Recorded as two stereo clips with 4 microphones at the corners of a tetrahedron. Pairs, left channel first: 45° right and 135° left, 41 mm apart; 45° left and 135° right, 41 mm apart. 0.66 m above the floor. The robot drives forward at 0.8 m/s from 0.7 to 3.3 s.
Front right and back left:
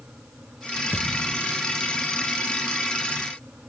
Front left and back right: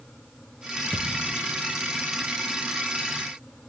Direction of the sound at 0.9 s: 105° left.